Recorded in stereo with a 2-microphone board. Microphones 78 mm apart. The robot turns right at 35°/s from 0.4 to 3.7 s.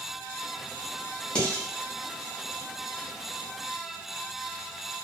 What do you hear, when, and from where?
1.4 s dishes clattering: 15° left (ahead or behind), 0.8 m; by 1.6 s 20° left (ahead or behind), 0.8 m